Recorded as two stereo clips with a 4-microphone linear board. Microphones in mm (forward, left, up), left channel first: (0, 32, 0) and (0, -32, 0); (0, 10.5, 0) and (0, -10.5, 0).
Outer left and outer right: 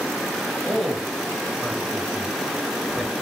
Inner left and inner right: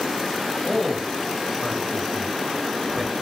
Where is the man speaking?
10° left (ahead or behind), 1.0 m.